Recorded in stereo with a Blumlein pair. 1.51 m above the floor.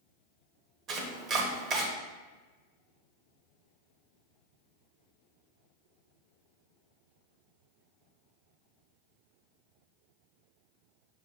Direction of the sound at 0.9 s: 30° right.